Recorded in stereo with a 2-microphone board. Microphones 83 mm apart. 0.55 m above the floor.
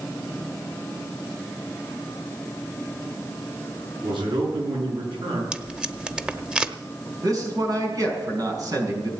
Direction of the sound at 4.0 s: 75° right (ahead or behind).